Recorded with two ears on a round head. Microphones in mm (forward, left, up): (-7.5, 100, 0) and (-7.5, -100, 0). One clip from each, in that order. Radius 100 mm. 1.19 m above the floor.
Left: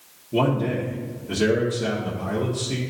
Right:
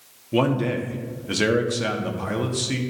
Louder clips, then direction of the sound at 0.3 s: Even; 50° right (ahead or behind).